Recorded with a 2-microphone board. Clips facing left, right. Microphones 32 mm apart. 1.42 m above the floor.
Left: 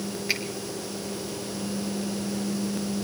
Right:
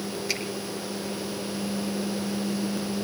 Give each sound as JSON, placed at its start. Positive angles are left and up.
{"t": 0.3, "sound": "a finger snap", "side_deg": 20, "distance_m": 3.5}